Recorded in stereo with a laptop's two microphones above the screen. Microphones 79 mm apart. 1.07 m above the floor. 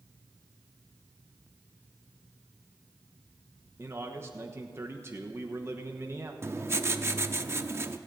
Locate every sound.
3.8 s a man speaking: 30° right (ahead or behind), 1.1 m
6.4 s writing: 35° right (ahead or behind), 0.7 m